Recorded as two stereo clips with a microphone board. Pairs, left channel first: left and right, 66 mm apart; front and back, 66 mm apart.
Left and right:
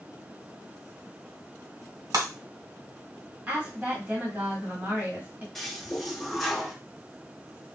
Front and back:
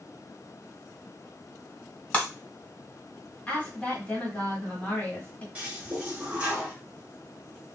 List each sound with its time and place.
2.1 s breaking glass: 70° right, 1.5 m
3.5 s a woman speaking: 50° right, 1.5 m
5.5 s a toilet flushing: 175° left, 1.1 m